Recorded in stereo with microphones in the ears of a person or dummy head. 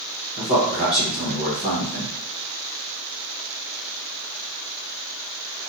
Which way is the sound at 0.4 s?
5° right (ahead or behind).